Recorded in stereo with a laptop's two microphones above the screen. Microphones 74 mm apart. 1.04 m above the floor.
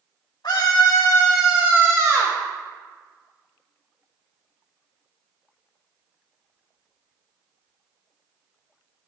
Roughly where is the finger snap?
No finger snap in this recording.